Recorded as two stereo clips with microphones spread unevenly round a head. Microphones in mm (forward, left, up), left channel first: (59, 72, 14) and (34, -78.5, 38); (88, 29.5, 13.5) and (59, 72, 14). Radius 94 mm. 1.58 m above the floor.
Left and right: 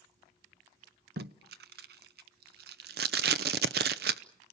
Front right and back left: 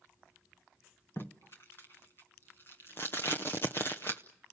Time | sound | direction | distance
1.2 | tape being pulled | 130° right | 0.6 m